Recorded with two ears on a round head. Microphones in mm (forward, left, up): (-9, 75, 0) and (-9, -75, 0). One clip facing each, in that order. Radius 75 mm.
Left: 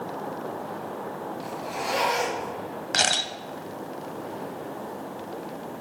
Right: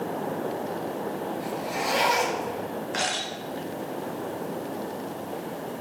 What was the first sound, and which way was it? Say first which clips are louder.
A zipper: right 2 dB; centre (ahead or behind).